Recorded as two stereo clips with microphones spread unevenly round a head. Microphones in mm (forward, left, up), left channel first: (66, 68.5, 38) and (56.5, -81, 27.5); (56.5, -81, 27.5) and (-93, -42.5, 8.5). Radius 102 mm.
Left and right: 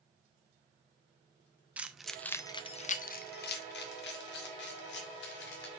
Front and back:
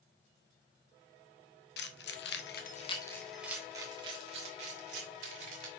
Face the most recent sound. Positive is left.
turn(degrees=110)